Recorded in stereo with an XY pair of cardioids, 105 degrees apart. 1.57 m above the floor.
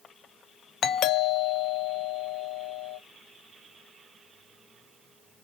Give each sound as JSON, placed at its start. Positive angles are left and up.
{"t": 0.8, "sound": "a doorbell", "azimuth_deg": 70, "distance_m": 0.8}